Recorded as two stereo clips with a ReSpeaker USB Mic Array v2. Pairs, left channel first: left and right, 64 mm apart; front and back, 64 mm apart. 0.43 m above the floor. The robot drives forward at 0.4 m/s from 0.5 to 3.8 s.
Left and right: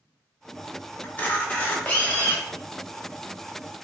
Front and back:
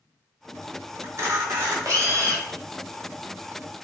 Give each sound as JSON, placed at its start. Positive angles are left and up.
{"t": 1.0, "sound": "a camera shutter", "azimuth_deg": 150, "distance_m": 0.8}